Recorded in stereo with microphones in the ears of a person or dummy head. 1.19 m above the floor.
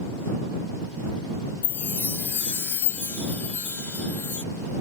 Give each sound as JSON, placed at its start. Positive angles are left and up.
{"t": 1.6, "sound": "a chime", "side_deg": 10}